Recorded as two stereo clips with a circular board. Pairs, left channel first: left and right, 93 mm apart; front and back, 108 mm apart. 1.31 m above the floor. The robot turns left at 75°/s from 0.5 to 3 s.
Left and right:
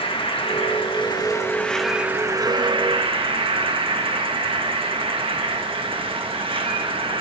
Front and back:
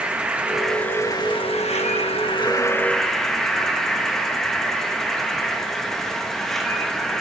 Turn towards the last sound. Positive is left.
turn(degrees=-85)